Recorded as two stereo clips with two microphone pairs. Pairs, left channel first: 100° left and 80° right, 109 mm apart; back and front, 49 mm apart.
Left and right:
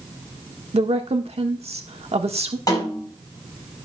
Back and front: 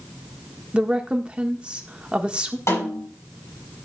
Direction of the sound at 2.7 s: 155° left.